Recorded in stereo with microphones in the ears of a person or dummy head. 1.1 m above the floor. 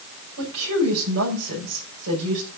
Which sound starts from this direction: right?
A woman speaking, at 0.4 s.